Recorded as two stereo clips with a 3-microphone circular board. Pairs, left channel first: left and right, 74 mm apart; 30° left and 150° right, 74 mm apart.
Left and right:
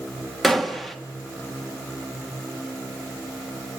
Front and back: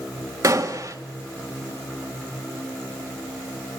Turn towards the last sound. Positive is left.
turn(degrees=180)